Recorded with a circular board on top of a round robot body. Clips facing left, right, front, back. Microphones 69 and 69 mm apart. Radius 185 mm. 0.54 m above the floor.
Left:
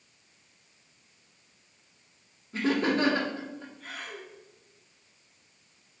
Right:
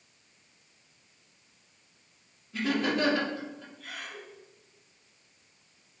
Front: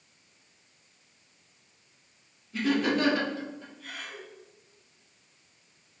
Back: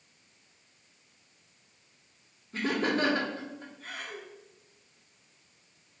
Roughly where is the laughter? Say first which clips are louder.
Left 2 dB, front 3 dB; behind left.